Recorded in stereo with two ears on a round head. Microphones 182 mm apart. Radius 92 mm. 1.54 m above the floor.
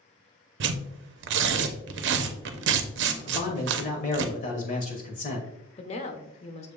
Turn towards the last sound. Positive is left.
turn(degrees=30)  # may be behind; listen again after turning